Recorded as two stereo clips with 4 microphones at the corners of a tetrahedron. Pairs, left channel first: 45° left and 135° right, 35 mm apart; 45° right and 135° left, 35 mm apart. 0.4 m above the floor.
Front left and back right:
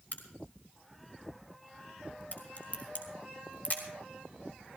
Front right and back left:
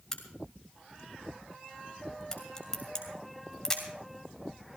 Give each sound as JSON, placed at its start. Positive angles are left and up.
{"t": 0.1, "sound": "a crack", "azimuth_deg": 25, "distance_m": 2.5}